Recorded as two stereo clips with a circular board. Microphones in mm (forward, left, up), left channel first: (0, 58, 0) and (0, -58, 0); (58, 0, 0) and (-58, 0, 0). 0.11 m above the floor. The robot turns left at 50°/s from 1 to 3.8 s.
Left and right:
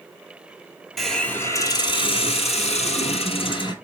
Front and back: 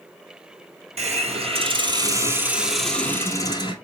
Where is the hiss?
Straight behind, 1.0 m; by 3.7 s 45° left, 1.0 m.